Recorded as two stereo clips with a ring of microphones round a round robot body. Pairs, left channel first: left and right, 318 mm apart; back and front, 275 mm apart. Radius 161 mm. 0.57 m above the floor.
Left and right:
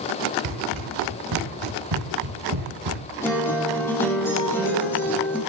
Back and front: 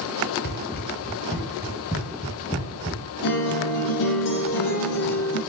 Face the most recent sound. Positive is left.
turn(degrees=175)